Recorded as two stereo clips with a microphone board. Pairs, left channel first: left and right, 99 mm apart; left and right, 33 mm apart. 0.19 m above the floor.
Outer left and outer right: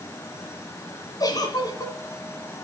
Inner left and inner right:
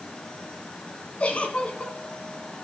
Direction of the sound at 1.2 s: 40° left (ahead or behind).